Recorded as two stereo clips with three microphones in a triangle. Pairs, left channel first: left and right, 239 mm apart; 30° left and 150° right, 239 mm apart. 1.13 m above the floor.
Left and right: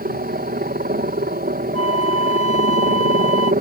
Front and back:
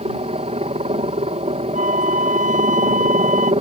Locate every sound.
0.0 s a helicopter: 105° right
1.7 s a flute: 90° right